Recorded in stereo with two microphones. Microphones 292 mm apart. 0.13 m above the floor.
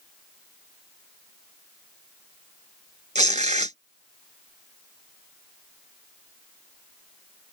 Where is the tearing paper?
25° right (ahead or behind).